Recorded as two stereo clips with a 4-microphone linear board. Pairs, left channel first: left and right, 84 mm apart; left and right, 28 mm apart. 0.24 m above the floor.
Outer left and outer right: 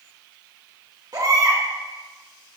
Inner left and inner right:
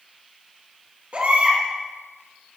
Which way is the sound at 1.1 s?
55° right (ahead or behind).